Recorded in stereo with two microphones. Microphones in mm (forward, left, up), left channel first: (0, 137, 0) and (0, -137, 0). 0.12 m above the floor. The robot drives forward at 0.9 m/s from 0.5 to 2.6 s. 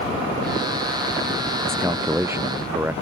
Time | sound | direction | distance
1.6 | a man speaking | 10° right (ahead or behind) | ?